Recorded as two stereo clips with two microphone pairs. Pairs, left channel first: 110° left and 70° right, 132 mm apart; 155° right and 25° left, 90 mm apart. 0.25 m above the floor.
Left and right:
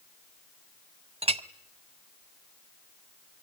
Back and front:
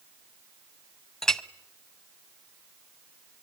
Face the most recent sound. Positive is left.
turn(degrees=-70)